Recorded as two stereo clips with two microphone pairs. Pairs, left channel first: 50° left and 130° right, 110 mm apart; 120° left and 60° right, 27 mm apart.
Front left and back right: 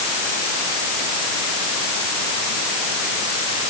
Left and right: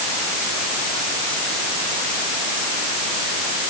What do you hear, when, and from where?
Only background noise.